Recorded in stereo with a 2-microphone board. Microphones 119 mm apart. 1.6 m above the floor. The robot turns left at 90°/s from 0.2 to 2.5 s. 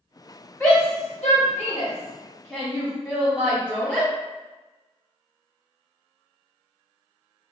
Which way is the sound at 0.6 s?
5° left (ahead or behind).